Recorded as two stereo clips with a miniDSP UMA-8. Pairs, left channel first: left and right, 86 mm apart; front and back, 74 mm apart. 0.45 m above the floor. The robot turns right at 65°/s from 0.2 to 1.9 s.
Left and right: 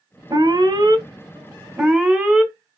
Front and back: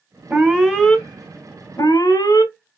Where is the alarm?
120° right, 1.1 m; by 2.5 s 15° right, 1.1 m.